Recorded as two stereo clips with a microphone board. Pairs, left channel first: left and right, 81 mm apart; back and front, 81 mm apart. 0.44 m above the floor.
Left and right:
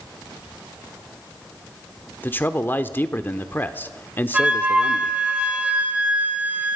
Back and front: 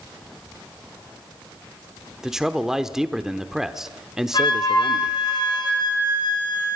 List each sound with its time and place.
2.2 s a man speaking: 75° left, 1.0 m
4.3 s a flute: 165° right, 2.5 m